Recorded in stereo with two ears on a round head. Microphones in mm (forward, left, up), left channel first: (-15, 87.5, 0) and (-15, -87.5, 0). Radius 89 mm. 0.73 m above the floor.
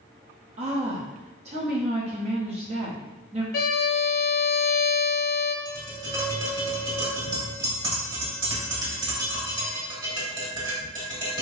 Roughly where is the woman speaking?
Right.